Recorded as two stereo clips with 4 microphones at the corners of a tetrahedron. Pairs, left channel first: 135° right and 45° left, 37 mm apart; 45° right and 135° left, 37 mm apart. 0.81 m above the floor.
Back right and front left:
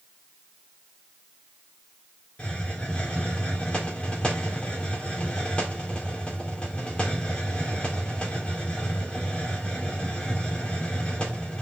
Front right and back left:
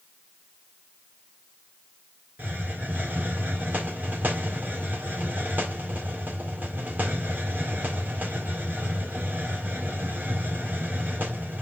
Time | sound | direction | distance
2.4 | a hiss | 165° left | 2 m